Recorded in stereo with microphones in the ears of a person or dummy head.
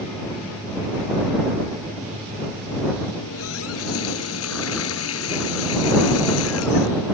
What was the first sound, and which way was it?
A running tap, 90° left.